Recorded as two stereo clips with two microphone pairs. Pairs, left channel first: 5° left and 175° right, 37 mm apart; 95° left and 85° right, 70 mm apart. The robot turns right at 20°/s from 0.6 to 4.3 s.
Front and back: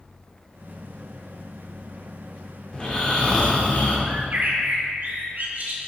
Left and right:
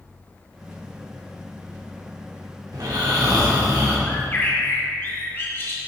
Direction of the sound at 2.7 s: 65° right.